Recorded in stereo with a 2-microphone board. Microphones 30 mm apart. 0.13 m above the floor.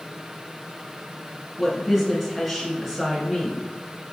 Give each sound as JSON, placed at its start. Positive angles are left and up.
{"t": 1.6, "sound": "a woman speaking", "side_deg": 5, "distance_m": 1.2}